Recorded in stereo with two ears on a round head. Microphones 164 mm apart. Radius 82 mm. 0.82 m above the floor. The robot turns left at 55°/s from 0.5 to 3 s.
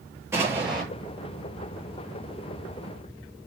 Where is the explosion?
15° right (ahead or behind), 8.5 m; by 0.8 s 5° left (ahead or behind), 8.5 m.